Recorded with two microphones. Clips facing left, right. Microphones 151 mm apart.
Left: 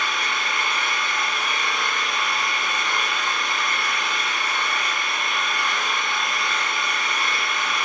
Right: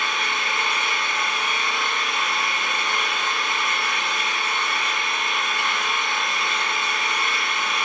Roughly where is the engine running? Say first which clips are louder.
Even; right.